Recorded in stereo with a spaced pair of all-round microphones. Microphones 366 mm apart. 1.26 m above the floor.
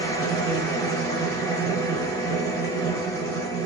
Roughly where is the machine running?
Centre.